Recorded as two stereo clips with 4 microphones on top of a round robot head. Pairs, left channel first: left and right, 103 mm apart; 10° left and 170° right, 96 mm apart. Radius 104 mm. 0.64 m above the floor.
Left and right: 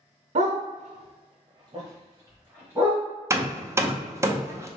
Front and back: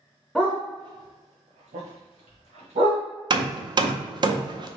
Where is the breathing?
No breathing in this recording.